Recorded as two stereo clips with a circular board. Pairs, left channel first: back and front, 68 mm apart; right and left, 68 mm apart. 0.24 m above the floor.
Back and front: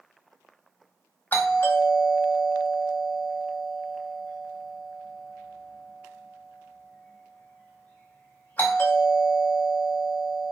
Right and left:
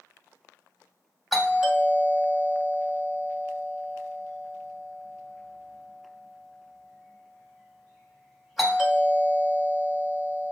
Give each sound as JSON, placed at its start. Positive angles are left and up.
{"t": 1.3, "sound": "a doorbell", "azimuth_deg": 180, "distance_m": 1.5}